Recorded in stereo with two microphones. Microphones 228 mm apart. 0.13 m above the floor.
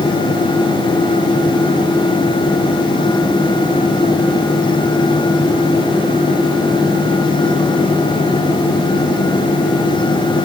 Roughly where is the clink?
No clink in this recording.